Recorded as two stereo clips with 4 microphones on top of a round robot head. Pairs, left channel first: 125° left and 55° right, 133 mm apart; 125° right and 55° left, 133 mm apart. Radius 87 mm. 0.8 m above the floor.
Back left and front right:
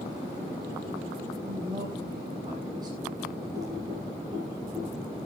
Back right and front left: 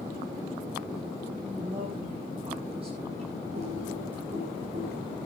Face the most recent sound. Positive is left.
turn(degrees=10)